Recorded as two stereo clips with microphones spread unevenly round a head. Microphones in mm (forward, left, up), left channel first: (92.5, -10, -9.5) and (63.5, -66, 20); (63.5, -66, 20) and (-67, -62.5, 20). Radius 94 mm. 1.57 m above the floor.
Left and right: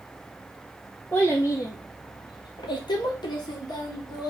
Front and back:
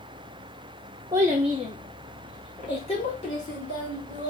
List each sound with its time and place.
1.1 s a child speaking: 160° left, 0.5 m; by 4.3 s 45° left, 1.6 m